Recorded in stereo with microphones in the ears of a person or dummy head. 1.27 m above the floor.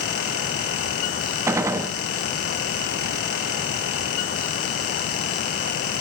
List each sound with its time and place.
1.5 s a gunshot: 10° right (ahead or behind), 0.9 m